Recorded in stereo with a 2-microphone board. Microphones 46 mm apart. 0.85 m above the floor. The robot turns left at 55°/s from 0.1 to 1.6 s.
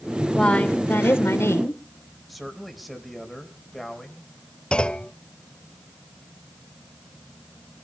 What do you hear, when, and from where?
0.3 s a woman speaking: 165° left, 3.5 m; by 1.8 s 95° left, 3.5 m
2.3 s a man speaking: centre (ahead or behind), 4 m
4.7 s a clunk: 20° left (ahead or behind), 0.7 m